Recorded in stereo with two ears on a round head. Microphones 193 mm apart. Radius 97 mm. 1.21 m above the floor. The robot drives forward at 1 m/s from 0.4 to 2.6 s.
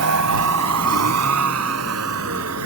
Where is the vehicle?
80° right.